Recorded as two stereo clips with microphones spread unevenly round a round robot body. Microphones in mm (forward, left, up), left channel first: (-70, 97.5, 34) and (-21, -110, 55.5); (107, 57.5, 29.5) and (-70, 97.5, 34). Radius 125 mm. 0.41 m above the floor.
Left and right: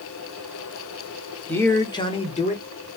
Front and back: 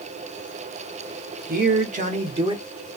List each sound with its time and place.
1.5 s a man speaking: straight behind, 1.1 m; by 2.6 s 110° left, 1.0 m